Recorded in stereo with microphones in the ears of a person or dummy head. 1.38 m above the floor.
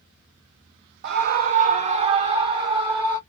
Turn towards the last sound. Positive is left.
turn(degrees=-20)  # may be behind; listen again after turning